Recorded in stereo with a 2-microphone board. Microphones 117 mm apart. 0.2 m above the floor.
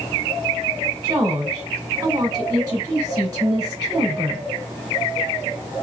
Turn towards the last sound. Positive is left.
turn(degrees=-30)  # may be behind; listen again after turning